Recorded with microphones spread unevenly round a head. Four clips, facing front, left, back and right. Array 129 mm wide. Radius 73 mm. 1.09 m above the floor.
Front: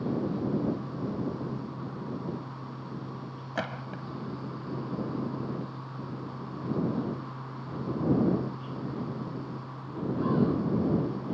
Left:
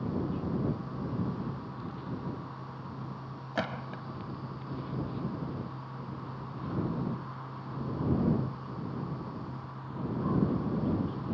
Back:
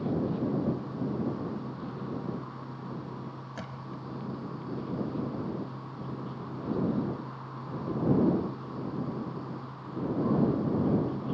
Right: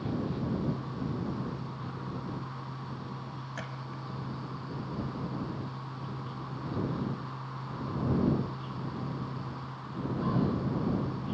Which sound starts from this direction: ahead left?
A gunshot, at 3.5 s.